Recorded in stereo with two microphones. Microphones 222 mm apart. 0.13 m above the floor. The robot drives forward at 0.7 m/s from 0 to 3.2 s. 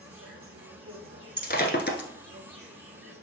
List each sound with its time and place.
0.0 s an insect: 80° right, 2 m; by 3.2 s 45° right (ahead or behind), 3 m
1.4 s breaking glass: 45° left (ahead or behind), 1.1 m; by 2.1 s 50° left (ahead or behind), 1.1 m